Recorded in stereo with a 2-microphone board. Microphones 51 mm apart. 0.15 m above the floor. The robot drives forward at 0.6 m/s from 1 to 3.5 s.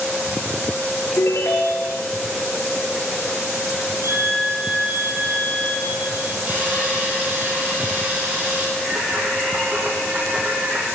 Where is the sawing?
35° right (ahead or behind), 3 m.